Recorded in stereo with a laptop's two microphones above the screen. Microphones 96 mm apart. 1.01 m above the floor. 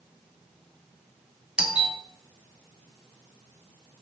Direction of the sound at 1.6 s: 10° right (ahead or behind).